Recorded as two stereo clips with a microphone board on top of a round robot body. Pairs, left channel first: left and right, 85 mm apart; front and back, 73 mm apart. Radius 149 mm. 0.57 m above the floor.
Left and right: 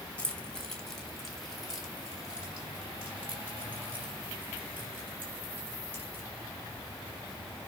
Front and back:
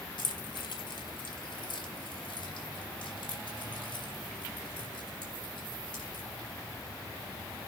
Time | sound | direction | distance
0.2 | keys jangling | 15° left | 2.5 m